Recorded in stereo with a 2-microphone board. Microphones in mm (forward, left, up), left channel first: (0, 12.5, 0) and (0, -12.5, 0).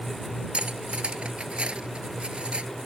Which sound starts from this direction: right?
Cutlery clinking, at 0.5 s.